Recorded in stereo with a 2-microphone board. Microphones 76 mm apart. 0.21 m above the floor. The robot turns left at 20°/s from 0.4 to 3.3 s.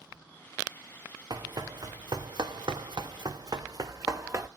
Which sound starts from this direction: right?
Running footsteps, at 1.3 s.